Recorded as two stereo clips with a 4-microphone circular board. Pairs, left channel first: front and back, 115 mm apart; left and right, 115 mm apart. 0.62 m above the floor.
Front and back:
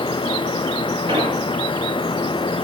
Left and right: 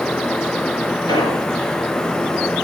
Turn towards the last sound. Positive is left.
turn(degrees=145)